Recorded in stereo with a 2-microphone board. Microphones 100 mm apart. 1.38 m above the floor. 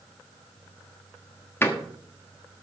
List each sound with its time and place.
1.6 s a door slam: 25° left (ahead or behind), 1.4 m